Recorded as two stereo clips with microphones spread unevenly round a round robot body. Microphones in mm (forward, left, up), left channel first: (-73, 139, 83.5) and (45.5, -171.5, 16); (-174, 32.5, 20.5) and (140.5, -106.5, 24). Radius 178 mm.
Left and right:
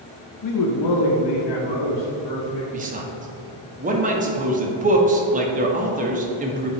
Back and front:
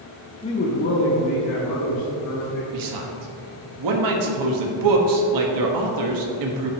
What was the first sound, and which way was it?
A man speaking, 90° left.